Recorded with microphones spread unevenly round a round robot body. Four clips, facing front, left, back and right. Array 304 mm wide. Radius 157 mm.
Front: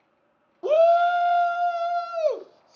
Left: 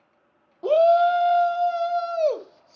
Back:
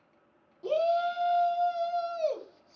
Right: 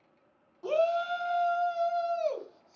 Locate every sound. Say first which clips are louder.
0.6 s a shout: left 11 dB, front 9 dB; 50° left, 1.2 m; by 2.8 s 55° left, 2.5 m